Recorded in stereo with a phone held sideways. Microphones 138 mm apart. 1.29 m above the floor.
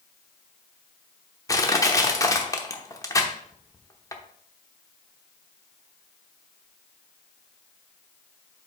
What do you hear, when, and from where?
1.5 s crushing: 20° left (ahead or behind), 0.9 m